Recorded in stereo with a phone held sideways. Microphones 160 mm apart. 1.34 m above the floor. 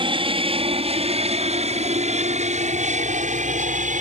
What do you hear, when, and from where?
0.0 s an aircraft: 35° right (ahead or behind); by 4.0 s 50° right (ahead or behind)